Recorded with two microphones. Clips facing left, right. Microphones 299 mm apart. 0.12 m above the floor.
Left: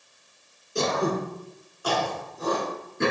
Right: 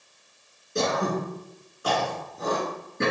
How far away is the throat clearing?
About 1.3 m.